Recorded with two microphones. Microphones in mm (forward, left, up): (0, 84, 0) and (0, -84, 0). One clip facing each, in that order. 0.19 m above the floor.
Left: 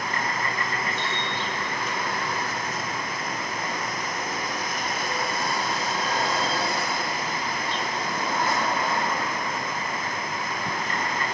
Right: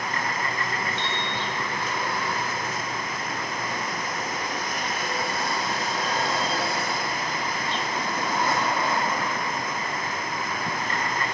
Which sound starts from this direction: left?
A piano, at 1.0 s.